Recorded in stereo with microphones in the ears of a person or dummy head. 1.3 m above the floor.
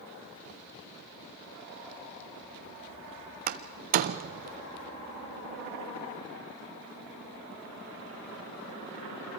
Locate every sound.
3.5 s a door slam: 35° right (ahead or behind), 0.6 m